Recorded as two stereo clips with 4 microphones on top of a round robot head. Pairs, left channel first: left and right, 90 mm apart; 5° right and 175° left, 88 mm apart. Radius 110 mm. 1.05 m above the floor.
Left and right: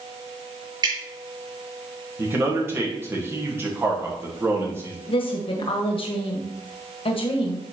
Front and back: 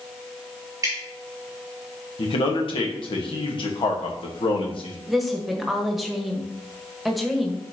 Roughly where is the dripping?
Behind right.